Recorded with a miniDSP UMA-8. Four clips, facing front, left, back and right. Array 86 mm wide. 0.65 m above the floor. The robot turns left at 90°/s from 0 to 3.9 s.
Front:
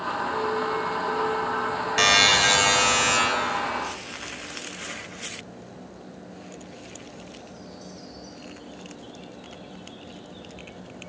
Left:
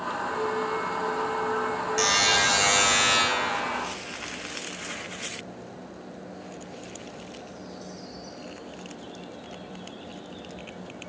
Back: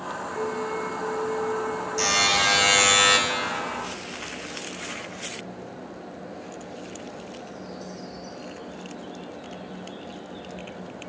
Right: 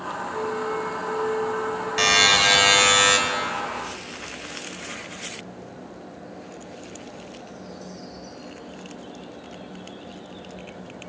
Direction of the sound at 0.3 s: 90° left.